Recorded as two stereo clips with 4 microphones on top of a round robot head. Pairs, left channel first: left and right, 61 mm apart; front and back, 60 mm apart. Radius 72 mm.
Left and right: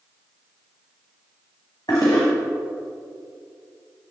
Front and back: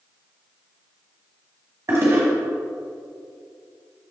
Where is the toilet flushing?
140° left, 1.6 m.